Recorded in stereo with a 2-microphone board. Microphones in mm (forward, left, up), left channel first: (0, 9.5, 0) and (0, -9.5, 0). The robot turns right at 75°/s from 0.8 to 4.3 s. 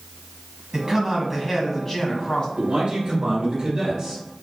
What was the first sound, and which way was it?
A man speaking, 55° right.